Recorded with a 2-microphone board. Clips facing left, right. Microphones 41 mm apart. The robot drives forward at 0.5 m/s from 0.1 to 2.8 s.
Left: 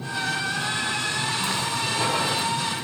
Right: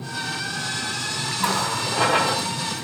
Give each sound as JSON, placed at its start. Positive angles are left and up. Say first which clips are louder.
{"t": 1.4, "sound": "a running tap", "louder": "right 3 dB", "side_deg": -60, "distance_m": 0.9}